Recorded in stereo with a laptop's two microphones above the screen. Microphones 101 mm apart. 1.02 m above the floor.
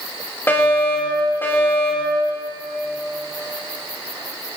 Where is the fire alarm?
25° left (ahead or behind), 4.5 m.